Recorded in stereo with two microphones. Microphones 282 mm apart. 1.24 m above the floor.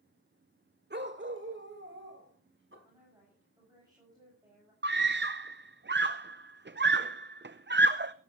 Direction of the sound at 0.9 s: 35° right (ahead or behind).